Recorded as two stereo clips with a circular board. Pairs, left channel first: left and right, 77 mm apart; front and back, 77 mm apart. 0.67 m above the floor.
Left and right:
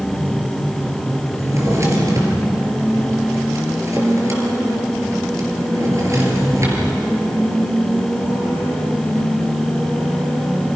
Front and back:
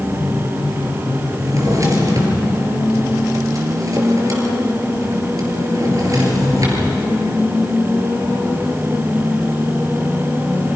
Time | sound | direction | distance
1.4 | a drawer | 140° right | 4.5 m